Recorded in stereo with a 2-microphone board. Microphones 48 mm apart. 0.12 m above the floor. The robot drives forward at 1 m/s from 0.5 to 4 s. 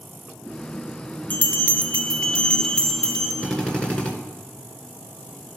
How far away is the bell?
About 0.7 m.